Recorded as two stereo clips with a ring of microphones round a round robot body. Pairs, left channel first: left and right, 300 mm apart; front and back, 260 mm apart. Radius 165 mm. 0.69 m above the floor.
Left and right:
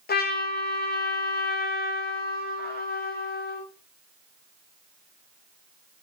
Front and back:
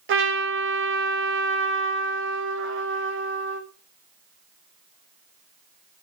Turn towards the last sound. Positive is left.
turn(degrees=145)